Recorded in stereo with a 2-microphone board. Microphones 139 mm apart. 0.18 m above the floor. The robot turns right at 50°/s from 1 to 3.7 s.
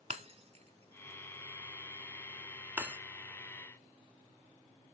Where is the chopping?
No chopping in this recording.